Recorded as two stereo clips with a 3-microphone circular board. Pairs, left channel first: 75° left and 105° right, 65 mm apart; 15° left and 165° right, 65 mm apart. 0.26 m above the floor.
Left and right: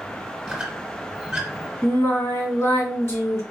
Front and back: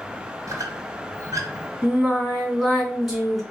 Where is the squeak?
175° left, 1.4 m.